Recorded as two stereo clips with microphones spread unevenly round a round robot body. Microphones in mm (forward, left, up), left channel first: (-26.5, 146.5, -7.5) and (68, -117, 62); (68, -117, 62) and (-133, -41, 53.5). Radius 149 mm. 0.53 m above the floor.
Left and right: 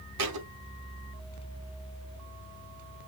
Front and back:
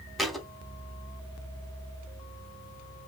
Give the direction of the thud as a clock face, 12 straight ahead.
4 o'clock.